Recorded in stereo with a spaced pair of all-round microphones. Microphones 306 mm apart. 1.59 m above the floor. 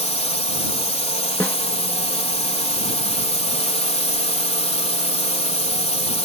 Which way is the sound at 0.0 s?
20° left (ahead or behind).